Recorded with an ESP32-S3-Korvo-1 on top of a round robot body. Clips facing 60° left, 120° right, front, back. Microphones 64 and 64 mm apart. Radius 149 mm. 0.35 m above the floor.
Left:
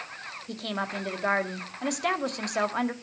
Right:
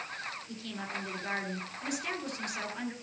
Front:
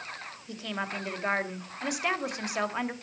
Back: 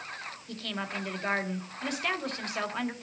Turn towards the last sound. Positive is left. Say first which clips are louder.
# left 7 dB, front 2 dB
turn(degrees=75)